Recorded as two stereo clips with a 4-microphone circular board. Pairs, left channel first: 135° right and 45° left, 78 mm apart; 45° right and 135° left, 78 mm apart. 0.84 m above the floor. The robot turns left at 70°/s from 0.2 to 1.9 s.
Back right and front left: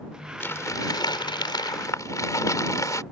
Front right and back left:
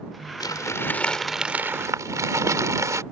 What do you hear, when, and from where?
0.4 s crumpling: 75° right; by 3.0 s straight behind